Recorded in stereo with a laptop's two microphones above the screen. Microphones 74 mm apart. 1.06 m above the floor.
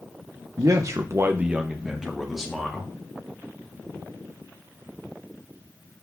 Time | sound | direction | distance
0.6 | a man speaking | 45° right (ahead or behind) | 0.8 m